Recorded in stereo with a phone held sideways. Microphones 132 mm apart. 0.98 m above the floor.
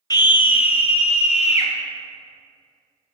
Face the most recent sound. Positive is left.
turn(degrees=55)  # may be behind; listen again after turning